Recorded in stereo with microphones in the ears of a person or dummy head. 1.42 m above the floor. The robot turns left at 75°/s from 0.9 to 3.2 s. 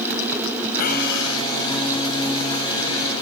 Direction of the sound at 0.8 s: 125° left.